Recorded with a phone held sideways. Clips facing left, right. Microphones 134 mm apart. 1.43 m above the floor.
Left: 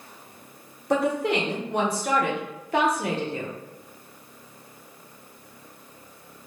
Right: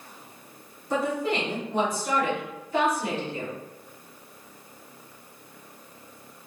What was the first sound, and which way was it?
A woman speaking, 70° left (ahead or behind).